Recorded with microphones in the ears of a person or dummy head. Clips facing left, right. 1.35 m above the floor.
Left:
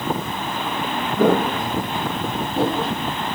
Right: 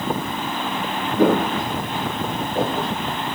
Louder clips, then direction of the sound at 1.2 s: Even; 20° right (ahead or behind).